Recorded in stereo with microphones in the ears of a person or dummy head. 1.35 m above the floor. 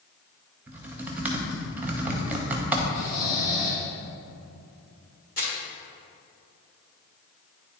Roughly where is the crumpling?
Left.